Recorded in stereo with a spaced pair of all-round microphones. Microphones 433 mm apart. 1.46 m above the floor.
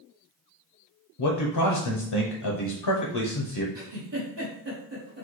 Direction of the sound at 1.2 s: 65° left (ahead or behind).